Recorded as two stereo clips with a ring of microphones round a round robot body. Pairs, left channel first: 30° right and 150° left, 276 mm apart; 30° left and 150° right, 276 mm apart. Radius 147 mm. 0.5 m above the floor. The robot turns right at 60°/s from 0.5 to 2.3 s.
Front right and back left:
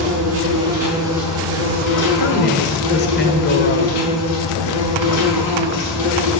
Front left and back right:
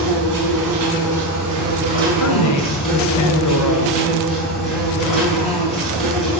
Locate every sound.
0.0 s an insect: 165° right, 5.5 m; by 6.4 s 60° right, 5.5 m
2.2 s a woman speaking: 15° left, 1.5 m; by 3.9 s 20° left, 1.5 m